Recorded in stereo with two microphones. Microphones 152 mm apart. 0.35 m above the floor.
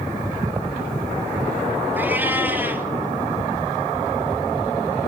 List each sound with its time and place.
2.0 s a cat meowing: 15° right (ahead or behind), 1.4 m